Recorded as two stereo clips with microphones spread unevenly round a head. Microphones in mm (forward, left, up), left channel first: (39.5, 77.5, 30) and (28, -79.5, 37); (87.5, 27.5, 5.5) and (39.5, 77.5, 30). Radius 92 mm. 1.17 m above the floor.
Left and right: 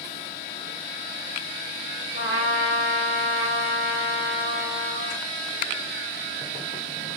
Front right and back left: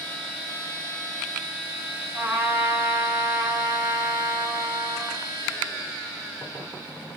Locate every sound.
2.1 s a trumpet: 105° left, 1.1 m